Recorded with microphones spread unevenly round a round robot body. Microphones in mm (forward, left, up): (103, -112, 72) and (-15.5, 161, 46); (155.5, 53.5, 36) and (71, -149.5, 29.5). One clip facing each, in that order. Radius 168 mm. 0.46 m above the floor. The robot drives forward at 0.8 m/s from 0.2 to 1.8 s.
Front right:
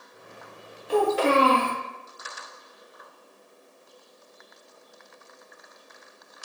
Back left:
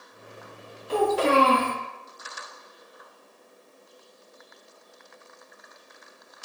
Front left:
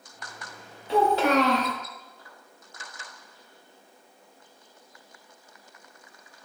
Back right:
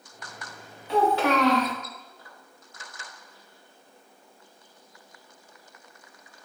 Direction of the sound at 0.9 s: 20° left.